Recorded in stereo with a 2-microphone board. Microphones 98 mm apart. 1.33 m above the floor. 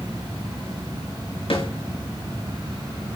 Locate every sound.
1.5 s a snare drum: 70° left (ahead or behind), 5.5 m